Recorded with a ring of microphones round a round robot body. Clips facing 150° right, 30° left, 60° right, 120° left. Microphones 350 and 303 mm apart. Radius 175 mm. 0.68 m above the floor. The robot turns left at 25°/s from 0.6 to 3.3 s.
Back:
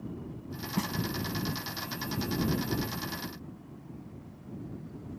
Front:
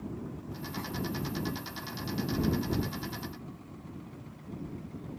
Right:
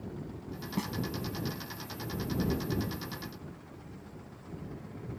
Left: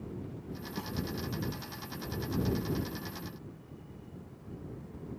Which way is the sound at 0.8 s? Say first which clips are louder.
Back 8 dB, right 7 dB; 120° right.